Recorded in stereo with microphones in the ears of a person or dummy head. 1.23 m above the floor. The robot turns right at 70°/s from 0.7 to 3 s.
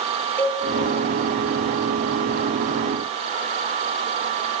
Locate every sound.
0.4 s a cowbell: 10° left (ahead or behind), 1.3 m